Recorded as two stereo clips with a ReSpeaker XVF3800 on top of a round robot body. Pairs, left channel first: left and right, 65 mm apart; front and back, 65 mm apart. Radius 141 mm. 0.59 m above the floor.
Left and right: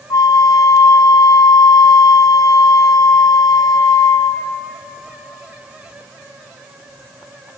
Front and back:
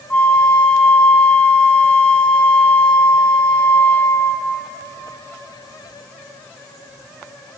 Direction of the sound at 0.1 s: 70° left.